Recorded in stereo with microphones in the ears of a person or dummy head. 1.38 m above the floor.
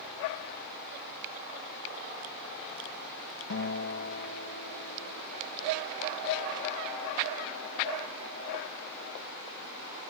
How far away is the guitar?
About 1.8 m.